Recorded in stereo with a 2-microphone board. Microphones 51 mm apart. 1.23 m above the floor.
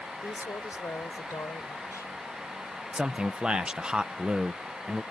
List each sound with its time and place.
0.2 s a woman speaking: 70° left (ahead or behind); by 2.1 s 75° left (ahead or behind)
2.9 s a man speaking: 15° right (ahead or behind)